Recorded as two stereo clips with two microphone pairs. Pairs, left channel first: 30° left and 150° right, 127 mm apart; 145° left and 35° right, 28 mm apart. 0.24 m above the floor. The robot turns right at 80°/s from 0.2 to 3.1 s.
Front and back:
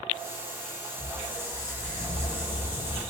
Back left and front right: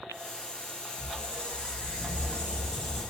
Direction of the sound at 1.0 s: 85° left.